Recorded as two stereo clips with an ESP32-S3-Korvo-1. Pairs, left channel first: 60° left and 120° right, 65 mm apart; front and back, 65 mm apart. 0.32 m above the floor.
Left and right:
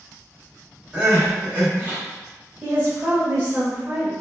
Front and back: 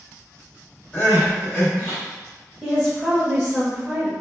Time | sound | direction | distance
0.9 | crying | 55° right | 1.9 m
2.6 | a woman speaking | 110° right | 0.9 m